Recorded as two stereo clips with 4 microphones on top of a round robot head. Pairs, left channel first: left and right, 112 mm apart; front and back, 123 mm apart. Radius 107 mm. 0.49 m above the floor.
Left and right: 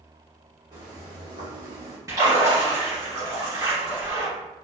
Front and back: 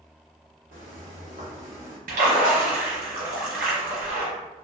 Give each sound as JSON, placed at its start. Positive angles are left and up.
{"t": 0.7, "sound": "footsteps", "azimuth_deg": -150, "distance_m": 1.4}
{"t": 2.1, "sound": "a splash", "azimuth_deg": -160, "distance_m": 0.9}